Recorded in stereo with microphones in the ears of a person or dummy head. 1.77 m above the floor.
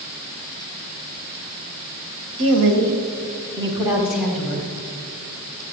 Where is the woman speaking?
65° right (ahead or behind), 1.8 m; by 4.7 s 10° left (ahead or behind), 2.5 m.